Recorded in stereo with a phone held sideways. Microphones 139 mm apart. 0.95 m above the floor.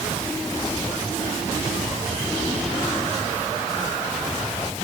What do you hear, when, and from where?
Only background noise.